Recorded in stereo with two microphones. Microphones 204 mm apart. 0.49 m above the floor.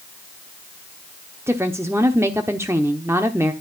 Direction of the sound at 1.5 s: 15° right (ahead or behind).